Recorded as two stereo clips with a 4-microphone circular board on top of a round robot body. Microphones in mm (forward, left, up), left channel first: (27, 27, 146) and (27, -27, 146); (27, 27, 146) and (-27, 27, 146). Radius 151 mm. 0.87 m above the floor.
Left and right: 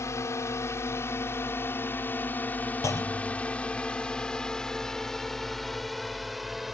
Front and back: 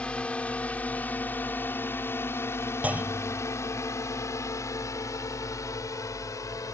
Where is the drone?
70° left; by 6.7 s 5° right.